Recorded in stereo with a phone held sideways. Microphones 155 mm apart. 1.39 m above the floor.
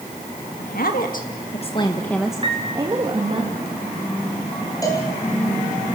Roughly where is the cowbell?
Left.